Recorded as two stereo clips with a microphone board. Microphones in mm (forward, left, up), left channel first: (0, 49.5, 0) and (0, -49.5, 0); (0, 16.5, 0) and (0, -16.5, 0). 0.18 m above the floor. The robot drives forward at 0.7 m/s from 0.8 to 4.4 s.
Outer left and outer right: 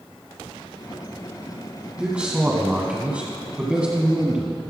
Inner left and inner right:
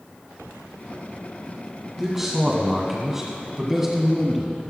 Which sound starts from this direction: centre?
A man speaking, at 2.0 s.